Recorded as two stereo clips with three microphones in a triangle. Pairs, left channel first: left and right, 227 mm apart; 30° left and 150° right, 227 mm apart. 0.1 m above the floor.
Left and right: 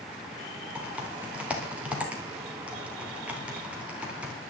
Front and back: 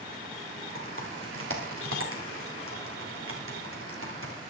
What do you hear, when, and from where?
0.8 s typing on a keyboard: 175° right, 3.5 m